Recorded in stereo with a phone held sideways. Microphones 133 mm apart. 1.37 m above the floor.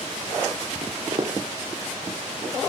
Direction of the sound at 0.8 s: 45° right (ahead or behind).